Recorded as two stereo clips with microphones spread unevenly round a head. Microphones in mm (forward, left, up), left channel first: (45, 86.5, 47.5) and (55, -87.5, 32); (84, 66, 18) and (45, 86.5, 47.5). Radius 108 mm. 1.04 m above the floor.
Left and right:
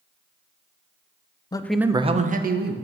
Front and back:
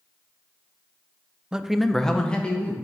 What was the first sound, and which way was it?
A man speaking, 30° left.